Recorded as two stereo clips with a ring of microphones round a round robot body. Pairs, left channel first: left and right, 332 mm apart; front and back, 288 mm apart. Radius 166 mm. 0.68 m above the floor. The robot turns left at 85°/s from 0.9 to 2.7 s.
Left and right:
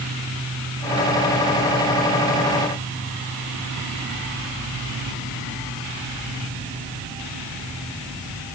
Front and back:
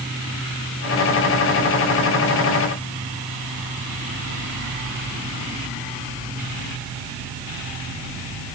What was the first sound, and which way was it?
Only background noise.